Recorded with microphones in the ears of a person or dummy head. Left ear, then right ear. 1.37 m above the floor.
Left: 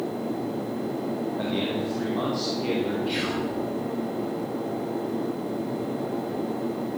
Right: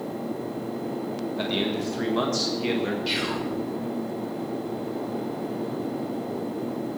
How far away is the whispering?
About 4.5 m.